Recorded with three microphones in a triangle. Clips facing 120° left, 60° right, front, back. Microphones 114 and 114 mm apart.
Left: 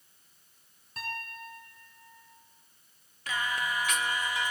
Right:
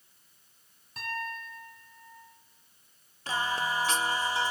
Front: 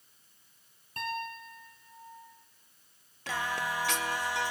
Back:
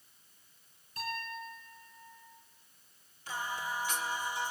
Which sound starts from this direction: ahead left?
A piano, at 1.0 s.